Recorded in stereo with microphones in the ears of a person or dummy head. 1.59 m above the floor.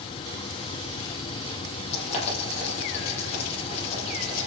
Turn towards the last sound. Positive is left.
turn(degrees=35)  # may be behind; listen again after turning